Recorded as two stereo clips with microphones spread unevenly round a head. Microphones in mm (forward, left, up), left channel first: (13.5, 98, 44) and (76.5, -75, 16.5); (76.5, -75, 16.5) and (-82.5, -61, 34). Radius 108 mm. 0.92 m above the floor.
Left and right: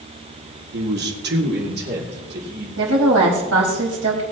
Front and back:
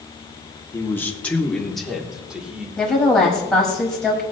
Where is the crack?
I don't hear a crack.